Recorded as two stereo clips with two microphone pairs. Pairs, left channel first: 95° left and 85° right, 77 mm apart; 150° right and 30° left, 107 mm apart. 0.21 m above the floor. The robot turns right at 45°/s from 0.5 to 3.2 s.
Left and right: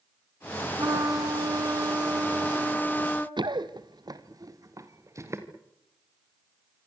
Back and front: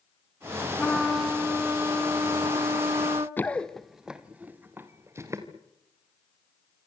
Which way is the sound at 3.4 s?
80° right.